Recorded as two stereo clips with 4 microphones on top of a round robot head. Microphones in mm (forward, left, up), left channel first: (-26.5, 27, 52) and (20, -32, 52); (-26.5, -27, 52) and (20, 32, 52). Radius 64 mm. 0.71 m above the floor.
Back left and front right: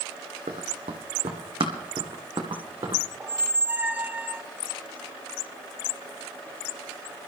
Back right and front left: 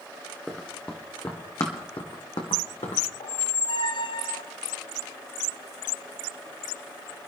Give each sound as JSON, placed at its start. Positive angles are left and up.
{"t": 0.5, "sound": "running footsteps", "azimuth_deg": -40, "distance_m": 1.7}
{"t": 3.2, "sound": "a squeak", "azimuth_deg": -125, "distance_m": 0.5}